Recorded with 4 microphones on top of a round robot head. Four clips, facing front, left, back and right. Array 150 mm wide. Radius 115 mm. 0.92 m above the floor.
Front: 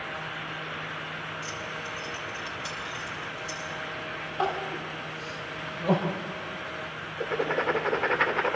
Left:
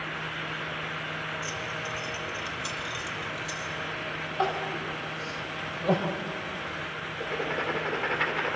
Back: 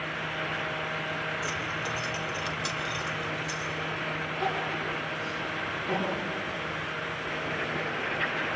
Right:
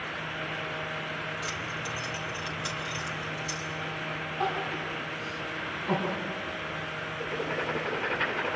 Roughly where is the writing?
Ahead.